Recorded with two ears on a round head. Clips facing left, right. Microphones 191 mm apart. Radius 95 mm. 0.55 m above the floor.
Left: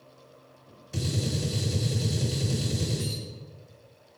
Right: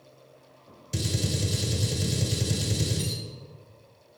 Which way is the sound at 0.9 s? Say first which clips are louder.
Even; 45° right (ahead or behind).